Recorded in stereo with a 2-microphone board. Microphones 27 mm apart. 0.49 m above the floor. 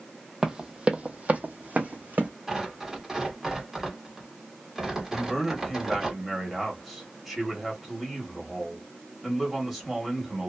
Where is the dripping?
No dripping in this recording.